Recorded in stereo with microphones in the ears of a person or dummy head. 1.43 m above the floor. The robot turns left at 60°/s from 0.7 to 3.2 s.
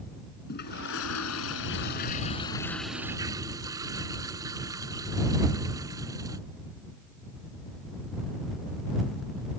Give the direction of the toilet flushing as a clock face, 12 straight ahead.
8 o'clock.